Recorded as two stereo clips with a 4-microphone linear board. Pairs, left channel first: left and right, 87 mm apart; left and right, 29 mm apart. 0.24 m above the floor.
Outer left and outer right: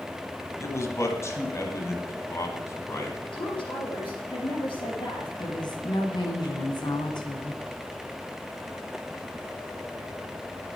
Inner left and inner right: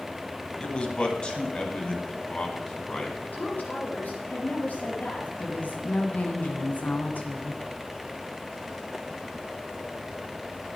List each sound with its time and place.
0.6 s a man speaking: 35° left (ahead or behind), 1.9 m; by 3.2 s 30° left (ahead or behind), 2.5 m
3.3 s a woman speaking: 80° left, 6.5 m
5.4 s a woman speaking: 60° left (ahead or behind), 3 m